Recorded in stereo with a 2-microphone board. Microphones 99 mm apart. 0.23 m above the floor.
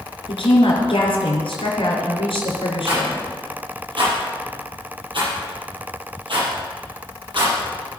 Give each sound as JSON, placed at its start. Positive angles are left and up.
{"t": 0.3, "sound": "a woman speaking", "side_deg": 70, "distance_m": 4.0}
{"t": 2.9, "sound": "a rattle", "side_deg": -55, "distance_m": 6.0}